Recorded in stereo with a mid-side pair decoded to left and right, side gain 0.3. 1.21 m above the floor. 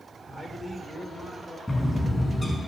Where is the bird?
20° left, 5.5 m.